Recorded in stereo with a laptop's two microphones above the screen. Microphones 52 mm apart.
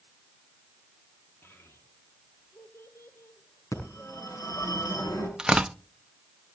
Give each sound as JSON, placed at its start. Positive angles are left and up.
{"t": 1.4, "sound": "a child speaking", "side_deg": 40, "distance_m": 1.4}
{"t": 3.7, "sound": "a phone ringing", "side_deg": 75, "distance_m": 6.0}
{"t": 5.4, "sound": "tearing paper", "side_deg": -15, "distance_m": 0.7}